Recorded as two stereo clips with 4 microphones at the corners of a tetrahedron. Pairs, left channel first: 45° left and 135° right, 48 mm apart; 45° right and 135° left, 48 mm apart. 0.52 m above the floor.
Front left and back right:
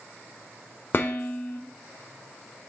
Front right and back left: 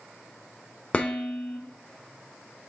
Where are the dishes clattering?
15° left, 0.7 m.